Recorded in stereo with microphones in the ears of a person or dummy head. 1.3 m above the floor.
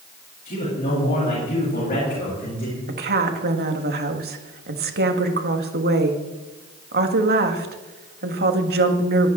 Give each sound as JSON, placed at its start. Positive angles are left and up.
{"t": 0.5, "sound": "a man speaking", "side_deg": 35, "distance_m": 9.5}
{"t": 2.9, "sound": "a woman speaking", "side_deg": -50, "distance_m": 1.9}